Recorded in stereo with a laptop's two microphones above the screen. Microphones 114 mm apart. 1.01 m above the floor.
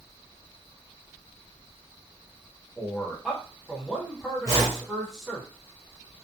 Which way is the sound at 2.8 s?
Centre (ahead or behind).